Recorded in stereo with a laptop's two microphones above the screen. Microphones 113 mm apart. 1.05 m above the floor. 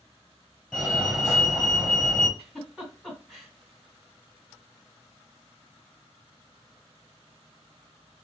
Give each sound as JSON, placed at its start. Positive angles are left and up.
{"t": 0.7, "sound": "a fire alarm", "side_deg": -5, "distance_m": 1.4}
{"t": 2.4, "sound": "a giggle", "side_deg": 5, "distance_m": 1.9}